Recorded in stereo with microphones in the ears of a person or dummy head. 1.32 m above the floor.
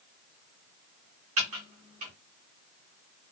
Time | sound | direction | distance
1.4 | typing on a keyboard | 40° right (ahead or behind) | 0.8 m